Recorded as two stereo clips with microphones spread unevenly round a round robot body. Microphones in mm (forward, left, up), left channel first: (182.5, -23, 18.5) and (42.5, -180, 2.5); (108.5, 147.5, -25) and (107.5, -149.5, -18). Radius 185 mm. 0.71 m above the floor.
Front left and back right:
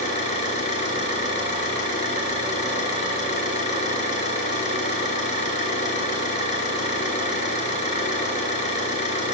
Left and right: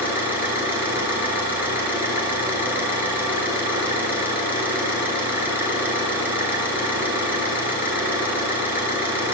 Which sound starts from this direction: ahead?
An engine running, at 0.0 s.